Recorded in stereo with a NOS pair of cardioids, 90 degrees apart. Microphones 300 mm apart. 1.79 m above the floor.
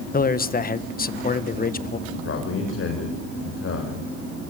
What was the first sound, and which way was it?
A man speaking, 30° left.